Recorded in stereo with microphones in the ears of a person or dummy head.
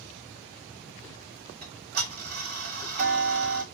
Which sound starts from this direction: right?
Ticking, at 1.6 s.